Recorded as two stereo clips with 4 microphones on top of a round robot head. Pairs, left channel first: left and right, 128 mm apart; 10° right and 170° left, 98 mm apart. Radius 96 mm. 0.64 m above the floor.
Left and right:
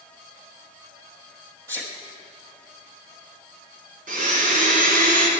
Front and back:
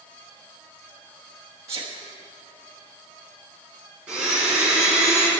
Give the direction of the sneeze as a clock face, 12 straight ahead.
5 o'clock.